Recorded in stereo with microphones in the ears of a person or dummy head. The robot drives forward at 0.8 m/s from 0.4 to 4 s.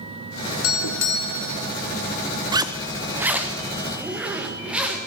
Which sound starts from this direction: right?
A zipper, at 2.5 s.